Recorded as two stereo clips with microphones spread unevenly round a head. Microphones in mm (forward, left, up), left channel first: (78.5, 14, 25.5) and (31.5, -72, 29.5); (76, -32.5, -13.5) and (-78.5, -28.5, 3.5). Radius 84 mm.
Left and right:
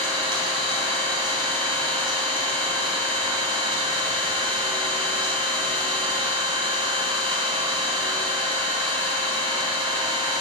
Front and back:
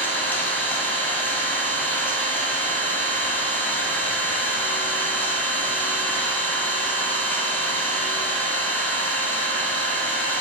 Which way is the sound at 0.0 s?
80° right.